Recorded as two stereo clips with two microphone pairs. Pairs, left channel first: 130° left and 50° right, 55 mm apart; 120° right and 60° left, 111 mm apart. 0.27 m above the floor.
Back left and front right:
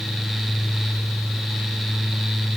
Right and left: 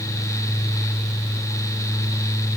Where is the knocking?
No knocking in this recording.